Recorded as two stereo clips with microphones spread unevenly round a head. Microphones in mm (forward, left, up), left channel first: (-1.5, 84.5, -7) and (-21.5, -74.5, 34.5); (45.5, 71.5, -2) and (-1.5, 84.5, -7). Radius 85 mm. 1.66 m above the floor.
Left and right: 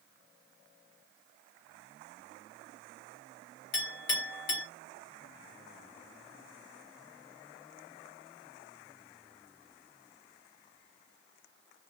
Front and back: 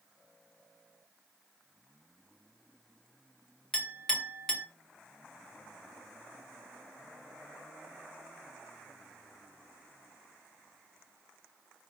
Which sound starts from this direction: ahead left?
A clink, at 3.7 s.